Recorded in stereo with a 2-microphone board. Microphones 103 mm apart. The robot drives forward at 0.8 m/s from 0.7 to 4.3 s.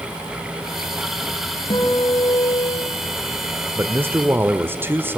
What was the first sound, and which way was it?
A guitar, 60° left (ahead or behind).